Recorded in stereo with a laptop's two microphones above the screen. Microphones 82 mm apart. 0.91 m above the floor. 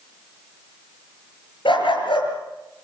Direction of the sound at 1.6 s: 80° left.